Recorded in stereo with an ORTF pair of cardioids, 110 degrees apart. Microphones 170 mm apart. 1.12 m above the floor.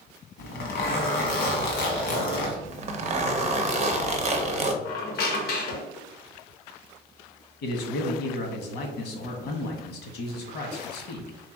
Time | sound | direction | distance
0.4 | a zipper | 65° left | 1.5 m
2.6 | a zipper | 40° right | 0.7 m
4.8 | a squeak | 65° left | 1.1 m
7.6 | a man speaking | 70° left | 1.5 m